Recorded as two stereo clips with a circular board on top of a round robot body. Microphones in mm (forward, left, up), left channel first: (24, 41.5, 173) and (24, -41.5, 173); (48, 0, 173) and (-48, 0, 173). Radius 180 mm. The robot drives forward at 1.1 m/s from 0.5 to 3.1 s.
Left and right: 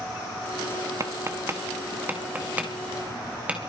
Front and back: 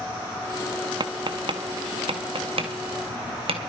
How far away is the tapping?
About 1.5 m.